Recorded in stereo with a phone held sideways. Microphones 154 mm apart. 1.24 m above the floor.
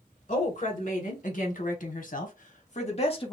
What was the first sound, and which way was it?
A woman speaking, 50° left (ahead or behind).